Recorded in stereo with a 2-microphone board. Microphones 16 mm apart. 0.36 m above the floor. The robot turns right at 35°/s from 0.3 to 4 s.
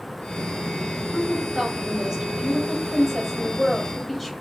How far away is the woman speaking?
About 1.9 m.